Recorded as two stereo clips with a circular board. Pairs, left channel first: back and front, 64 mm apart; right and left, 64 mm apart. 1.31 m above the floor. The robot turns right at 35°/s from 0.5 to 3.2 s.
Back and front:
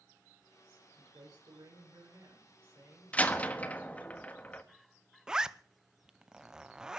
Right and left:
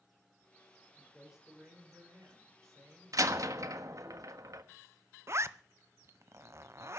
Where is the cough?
No cough in this recording.